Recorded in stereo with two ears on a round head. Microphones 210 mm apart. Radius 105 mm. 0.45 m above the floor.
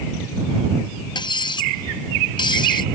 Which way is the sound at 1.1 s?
20° left (ahead or behind).